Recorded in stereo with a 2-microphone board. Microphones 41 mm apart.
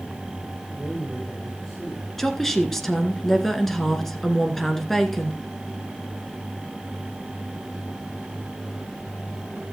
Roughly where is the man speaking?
Centre.